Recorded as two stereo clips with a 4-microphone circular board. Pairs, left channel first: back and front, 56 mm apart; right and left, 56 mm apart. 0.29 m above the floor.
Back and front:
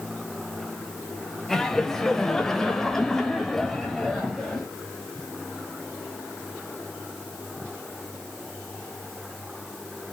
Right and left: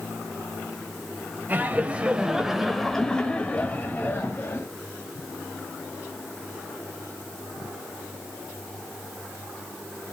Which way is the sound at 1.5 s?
105° left.